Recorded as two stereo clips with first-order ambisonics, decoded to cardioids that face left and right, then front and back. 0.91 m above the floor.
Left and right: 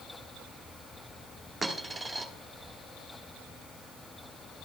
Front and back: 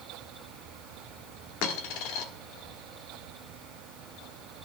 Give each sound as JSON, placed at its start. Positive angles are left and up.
{"t": 1.6, "sound": "a dropped coin", "azimuth_deg": -5, "distance_m": 1.1}